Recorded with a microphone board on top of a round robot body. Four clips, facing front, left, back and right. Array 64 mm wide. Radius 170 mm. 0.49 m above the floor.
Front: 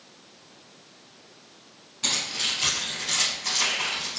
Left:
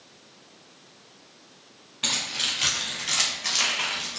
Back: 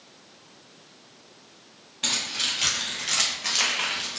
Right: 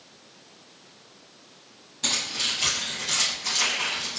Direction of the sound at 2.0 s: 110° left.